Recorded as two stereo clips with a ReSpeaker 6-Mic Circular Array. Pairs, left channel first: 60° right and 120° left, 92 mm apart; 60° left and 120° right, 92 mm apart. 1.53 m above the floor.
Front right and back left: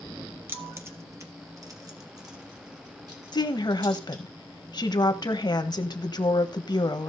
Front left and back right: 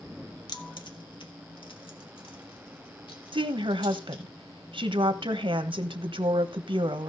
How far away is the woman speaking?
About 1.2 m.